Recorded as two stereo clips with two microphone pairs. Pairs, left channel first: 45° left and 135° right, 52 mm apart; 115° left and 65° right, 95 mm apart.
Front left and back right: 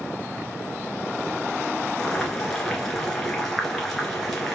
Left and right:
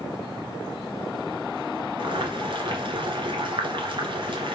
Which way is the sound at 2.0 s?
40° right.